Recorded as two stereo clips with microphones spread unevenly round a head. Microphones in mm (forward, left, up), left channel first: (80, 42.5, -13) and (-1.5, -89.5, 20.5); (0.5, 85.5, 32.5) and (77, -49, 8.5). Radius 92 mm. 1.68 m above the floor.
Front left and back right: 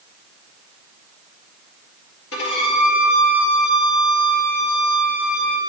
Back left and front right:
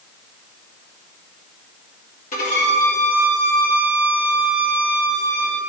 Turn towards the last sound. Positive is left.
turn(degrees=90)